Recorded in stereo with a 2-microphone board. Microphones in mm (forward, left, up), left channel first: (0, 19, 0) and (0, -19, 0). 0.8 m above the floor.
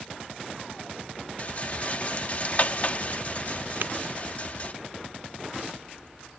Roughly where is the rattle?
Left.